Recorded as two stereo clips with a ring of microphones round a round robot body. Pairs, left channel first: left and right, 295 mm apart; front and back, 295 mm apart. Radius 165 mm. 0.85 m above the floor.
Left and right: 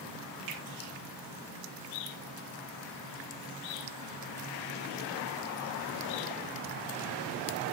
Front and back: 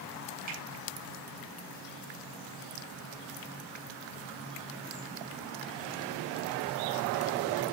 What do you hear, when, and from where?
0.5 s a finger snap: 120° right, 8 m